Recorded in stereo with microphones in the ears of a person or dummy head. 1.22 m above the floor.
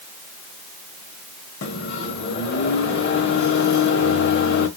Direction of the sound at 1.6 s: 55° left (ahead or behind).